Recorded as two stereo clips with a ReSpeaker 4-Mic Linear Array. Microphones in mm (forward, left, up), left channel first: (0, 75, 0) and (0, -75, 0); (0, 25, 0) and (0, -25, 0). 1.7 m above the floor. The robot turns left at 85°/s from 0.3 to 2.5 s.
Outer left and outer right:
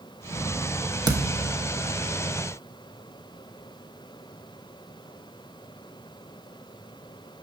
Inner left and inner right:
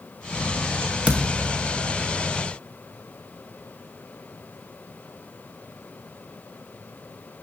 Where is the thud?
25° right (ahead or behind), 1.0 m; by 1.5 s 30° right (ahead or behind), 1.0 m.